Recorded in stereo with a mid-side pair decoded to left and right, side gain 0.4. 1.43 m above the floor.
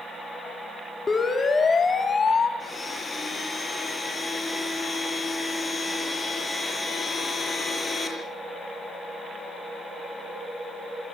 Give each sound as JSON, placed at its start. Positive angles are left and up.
{"t": 1.1, "sound": "a siren", "azimuth_deg": 35, "distance_m": 5.0}
{"t": 2.6, "sound": "a blender", "azimuth_deg": 25, "distance_m": 8.5}